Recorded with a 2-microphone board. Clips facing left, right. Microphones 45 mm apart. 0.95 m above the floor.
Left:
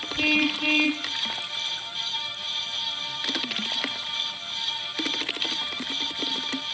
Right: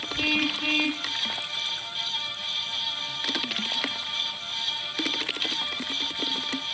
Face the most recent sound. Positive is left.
turn(degrees=20)  # may be behind; listen again after turning